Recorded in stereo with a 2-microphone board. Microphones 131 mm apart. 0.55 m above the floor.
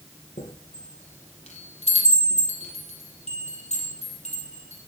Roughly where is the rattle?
No rattle in this recording.